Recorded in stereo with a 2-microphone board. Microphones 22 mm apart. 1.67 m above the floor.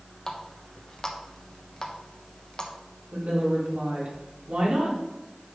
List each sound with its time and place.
0.3 s a running tap: 30° left (ahead or behind), 1.0 m
3.1 s a woman speaking: 80° right, 3.5 m